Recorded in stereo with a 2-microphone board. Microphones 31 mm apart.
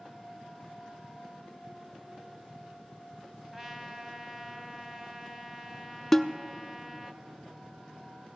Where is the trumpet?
10° right (ahead or behind), 1.0 m.